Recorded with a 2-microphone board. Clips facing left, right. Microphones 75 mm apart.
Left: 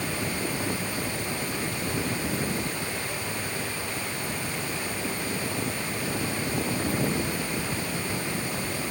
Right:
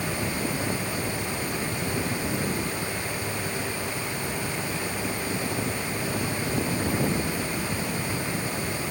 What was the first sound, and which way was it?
Only background noise.